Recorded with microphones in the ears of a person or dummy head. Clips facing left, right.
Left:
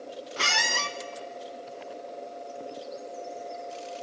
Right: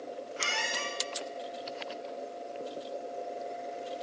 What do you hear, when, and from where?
0.4 s a squeak: 65° left (ahead or behind), 0.6 m